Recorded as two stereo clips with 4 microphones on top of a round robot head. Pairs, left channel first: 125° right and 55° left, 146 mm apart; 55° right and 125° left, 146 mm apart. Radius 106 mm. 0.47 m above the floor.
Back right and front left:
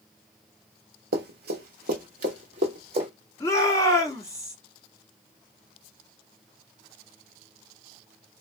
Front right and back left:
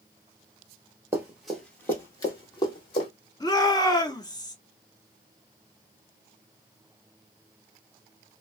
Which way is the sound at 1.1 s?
50° left.